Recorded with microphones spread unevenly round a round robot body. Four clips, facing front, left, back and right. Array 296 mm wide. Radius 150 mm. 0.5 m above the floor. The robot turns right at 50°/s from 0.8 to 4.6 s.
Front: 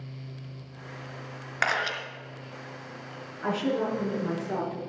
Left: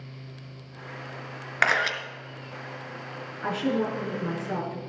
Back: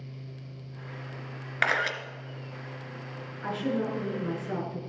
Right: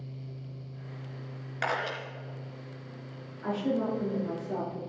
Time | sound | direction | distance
1.6 | a camera shutter | 90° left | 2.5 m
3.4 | a woman speaking | 90° left | 6.5 m